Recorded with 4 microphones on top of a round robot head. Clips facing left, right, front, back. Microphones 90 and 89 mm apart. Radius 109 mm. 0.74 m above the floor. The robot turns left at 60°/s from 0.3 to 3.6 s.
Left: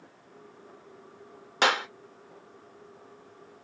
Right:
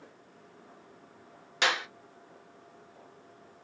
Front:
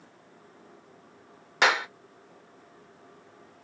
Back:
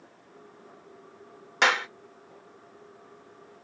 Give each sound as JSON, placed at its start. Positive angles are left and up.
{"t": 1.6, "sound": "a clap", "azimuth_deg": 85, "distance_m": 0.9}